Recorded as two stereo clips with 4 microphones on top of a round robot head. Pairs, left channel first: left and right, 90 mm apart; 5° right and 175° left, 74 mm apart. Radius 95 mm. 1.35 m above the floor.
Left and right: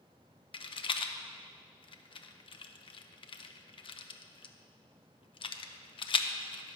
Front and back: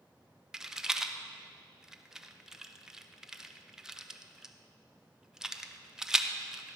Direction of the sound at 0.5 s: 90° left.